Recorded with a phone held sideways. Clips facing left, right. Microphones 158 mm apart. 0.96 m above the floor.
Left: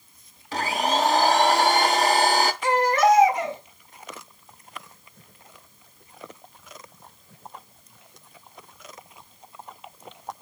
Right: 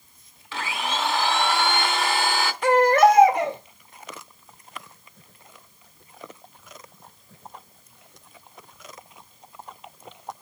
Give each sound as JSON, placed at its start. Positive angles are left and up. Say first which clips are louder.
{"t": 0.5, "sound": "a blender", "louder": "left 5 dB", "side_deg": 40, "distance_m": 0.7}
{"t": 2.6, "sound": "a baby crying", "louder": "right 6 dB", "side_deg": -60, "distance_m": 1.5}